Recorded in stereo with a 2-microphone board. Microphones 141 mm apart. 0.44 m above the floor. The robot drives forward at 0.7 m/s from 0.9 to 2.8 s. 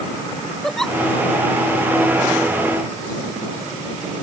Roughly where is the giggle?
Centre.